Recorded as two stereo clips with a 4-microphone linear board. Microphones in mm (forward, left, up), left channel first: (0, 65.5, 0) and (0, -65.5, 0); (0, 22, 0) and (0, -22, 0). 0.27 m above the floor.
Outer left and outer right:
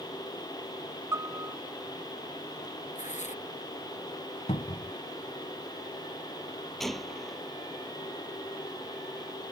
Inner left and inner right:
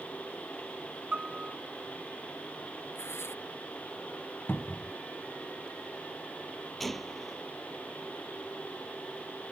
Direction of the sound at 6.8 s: Centre (ahead or behind).